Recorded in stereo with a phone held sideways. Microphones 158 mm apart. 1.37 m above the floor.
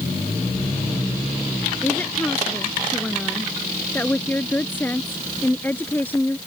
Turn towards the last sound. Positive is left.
turn(degrees=10)  # may be behind; listen again after turning